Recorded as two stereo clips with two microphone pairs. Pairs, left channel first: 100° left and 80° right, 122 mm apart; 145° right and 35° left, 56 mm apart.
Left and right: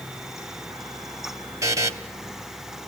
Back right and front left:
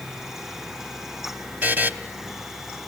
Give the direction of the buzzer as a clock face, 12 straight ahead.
1 o'clock.